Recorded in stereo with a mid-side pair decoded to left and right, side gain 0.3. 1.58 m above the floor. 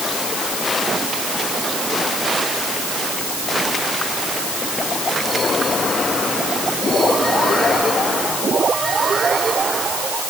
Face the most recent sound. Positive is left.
No sound to turn to.